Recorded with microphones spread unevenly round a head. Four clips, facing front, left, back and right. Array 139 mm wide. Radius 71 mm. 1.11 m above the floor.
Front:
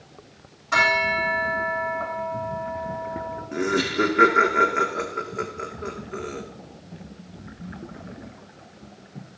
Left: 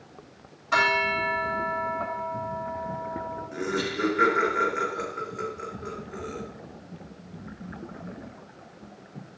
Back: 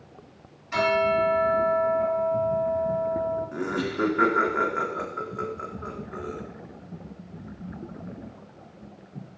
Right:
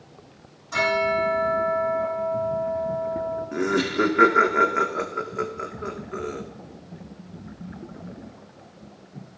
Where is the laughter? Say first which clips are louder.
Right 6 dB, front 5 dB; 50° right, 2 m.